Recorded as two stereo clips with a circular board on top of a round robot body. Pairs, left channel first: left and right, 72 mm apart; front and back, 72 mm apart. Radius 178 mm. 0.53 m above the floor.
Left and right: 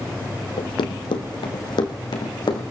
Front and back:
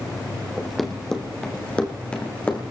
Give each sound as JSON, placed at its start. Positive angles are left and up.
{"t": 0.6, "sound": "running footsteps", "azimuth_deg": 95, "distance_m": 1.7}